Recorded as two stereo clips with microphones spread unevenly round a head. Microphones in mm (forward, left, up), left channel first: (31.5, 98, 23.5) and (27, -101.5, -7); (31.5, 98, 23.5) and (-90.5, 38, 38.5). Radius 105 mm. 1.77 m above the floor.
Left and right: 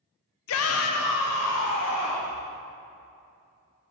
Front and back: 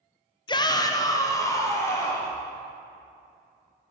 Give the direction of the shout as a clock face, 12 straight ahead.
9 o'clock.